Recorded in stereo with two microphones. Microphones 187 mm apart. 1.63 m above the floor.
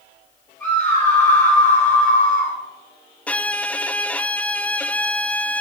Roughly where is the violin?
Centre.